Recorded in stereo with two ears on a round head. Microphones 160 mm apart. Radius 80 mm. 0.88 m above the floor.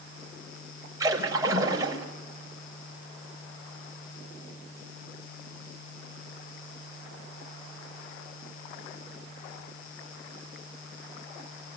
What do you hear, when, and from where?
1.0 s a splash: 20° right (ahead or behind), 5 m